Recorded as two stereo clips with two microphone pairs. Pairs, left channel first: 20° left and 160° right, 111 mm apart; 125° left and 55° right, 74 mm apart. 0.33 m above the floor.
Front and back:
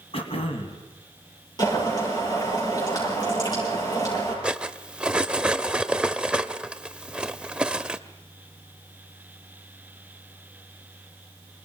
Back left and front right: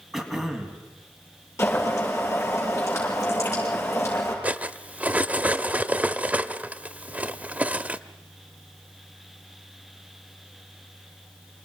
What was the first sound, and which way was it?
Throat clearing, 30° left.